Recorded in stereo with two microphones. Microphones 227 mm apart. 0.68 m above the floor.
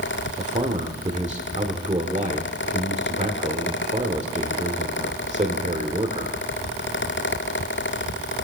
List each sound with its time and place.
0.4 s a man speaking: 30° right (ahead or behind), 1.5 m